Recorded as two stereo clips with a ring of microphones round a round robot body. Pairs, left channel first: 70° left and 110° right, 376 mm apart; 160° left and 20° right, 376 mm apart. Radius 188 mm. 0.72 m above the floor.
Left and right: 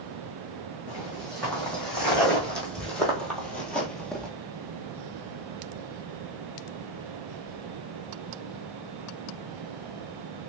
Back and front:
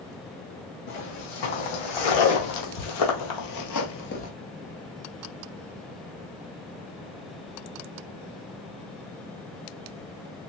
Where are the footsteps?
155° left, 2.5 m; by 4.3 s 150° left, 0.7 m.